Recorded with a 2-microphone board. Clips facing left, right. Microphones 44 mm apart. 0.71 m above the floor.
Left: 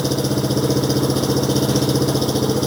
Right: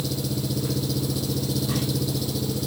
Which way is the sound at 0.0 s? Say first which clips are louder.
Left 9 dB; 80° left.